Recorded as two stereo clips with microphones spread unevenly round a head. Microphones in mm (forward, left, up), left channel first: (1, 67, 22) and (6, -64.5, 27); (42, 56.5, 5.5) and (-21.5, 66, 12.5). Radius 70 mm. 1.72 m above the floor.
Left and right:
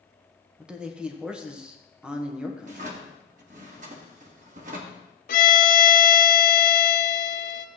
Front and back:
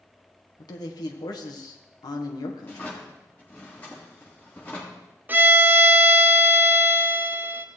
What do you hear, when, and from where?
0.6 s a man speaking: 5° right, 1.3 m
2.6 s a drawer: 80° right, 1.5 m
5.3 s a violin: 115° left, 0.8 m